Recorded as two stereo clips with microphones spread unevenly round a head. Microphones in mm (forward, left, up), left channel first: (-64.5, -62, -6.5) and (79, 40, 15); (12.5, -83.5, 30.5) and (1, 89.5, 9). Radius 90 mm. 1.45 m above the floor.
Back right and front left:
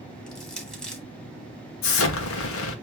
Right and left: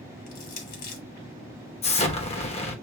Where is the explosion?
145° right, 1.3 m.